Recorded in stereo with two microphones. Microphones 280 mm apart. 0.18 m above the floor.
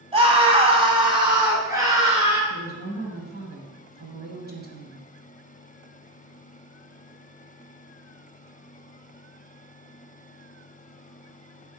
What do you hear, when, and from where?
0.1 s a scream: 20° right (ahead or behind), 1.4 m; by 2.4 s 10° right (ahead or behind), 2.5 m
2.5 s a woman speaking: 35° right (ahead or behind), 1.6 m